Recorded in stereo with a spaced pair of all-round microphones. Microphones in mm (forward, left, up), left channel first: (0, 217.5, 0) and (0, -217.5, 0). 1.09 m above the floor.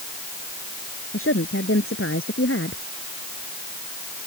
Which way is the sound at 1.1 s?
30° left (ahead or behind).